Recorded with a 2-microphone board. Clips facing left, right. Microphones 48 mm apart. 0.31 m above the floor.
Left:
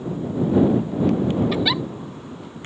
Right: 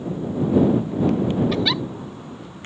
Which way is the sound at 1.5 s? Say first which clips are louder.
Even; 5° left (ahead or behind).